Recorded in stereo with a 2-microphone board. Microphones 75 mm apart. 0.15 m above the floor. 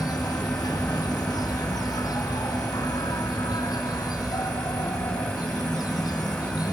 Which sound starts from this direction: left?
An insect, at 0.0 s.